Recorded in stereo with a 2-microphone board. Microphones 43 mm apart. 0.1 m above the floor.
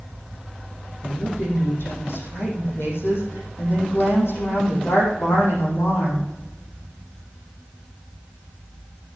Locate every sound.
1.0 s a woman speaking: 70° left (ahead or behind), 5 m